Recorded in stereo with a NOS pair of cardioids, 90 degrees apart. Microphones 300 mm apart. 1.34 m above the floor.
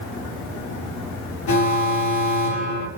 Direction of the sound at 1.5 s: 70° left.